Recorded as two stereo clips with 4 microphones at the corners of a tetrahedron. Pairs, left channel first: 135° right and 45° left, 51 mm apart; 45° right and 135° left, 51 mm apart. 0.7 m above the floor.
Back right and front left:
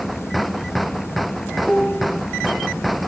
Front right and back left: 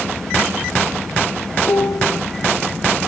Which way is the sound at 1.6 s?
65° right.